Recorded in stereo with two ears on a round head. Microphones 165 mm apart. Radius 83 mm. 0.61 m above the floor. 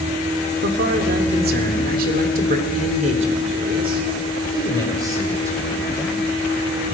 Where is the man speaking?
60° right (ahead or behind), 2.5 m; by 6.2 s 15° right (ahead or behind), 3.5 m.